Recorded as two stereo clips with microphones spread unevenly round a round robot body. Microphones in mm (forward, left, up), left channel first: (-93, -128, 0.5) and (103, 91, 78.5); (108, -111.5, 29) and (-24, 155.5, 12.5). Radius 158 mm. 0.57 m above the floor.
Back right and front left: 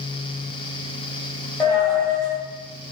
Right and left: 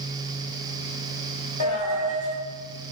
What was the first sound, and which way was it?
A dropped coin, 45° right.